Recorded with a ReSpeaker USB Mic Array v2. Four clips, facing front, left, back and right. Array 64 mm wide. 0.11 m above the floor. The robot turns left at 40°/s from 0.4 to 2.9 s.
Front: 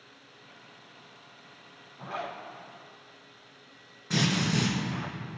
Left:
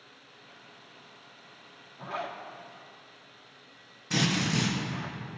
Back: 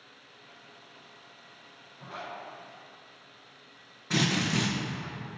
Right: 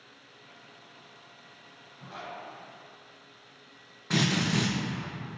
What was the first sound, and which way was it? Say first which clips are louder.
A zipper: left 5 dB, front 4 dB; 45° left.